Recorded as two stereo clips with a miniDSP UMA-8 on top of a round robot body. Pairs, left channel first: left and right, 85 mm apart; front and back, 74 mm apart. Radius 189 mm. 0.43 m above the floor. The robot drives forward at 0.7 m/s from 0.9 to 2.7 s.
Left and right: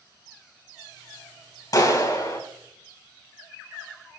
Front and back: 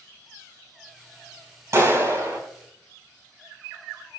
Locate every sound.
1.7 s a clap: 135° left, 4 m; by 2.4 s 140° left, 4 m